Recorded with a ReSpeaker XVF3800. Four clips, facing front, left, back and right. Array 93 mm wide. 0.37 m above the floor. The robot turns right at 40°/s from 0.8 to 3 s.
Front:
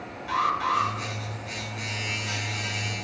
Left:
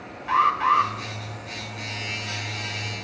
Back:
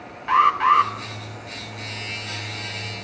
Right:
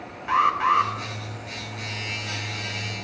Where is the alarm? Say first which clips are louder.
Even, back 8 dB; 170° right, 2 m; by 0.9 s 165° right, 2 m.